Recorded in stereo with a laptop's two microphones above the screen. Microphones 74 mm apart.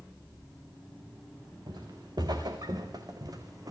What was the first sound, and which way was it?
Footsteps, 65° right (ahead or behind).